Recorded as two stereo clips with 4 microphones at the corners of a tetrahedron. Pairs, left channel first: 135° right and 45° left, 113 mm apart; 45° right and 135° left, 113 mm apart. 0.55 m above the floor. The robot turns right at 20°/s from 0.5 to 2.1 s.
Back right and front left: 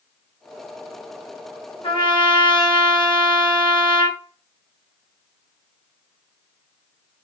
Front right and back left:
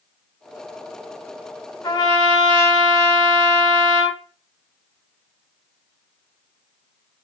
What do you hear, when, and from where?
1.8 s a trumpet: 100° right, 0.8 m; by 4.2 s 90° right, 0.8 m